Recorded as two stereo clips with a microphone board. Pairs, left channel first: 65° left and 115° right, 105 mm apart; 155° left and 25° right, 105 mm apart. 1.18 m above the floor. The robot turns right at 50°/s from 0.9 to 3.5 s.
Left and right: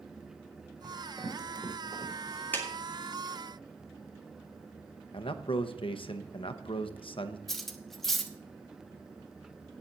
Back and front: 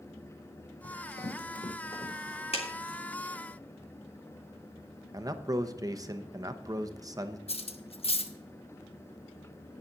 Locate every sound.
0.8 s running footsteps: 150° left, 4 m; by 2.4 s 150° right, 4.5 m
2.5 s a clap: 140° left, 2 m; by 2.7 s 145° left, 2 m
5.1 s a man speaking: 35° left, 0.8 m
7.5 s cutlery clinking: 155° left, 0.9 m